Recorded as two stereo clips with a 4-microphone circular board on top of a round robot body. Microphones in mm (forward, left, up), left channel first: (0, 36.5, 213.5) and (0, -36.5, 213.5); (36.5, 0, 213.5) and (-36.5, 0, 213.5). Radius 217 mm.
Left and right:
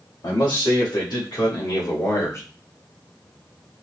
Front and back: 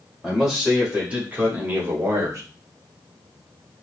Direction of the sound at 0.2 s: 95° left.